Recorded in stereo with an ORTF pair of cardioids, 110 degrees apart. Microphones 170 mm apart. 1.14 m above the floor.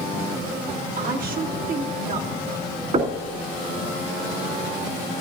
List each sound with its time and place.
1.0 s a woman speaking: 55° right, 2.5 m
2.9 s knocking: 45° right, 3 m